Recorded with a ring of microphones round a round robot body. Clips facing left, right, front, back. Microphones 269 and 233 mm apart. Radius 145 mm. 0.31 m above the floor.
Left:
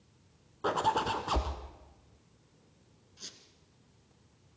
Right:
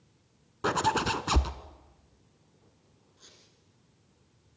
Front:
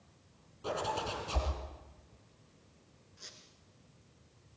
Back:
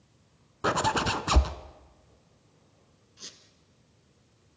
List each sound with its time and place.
0.6 s a zipper: 150° right, 0.8 m
3.2 s a squeak: 135° left, 2 m